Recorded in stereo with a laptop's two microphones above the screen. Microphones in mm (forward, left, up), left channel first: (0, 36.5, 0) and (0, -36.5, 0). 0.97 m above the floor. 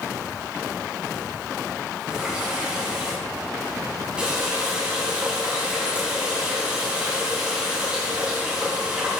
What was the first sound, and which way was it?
A running tap, 15° right (ahead or behind).